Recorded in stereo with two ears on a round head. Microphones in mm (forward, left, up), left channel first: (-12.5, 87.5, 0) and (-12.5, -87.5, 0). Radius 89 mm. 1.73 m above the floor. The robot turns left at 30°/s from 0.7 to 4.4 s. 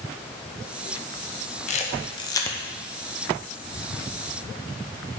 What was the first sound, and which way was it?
A camera shutter, 35° left (ahead or behind).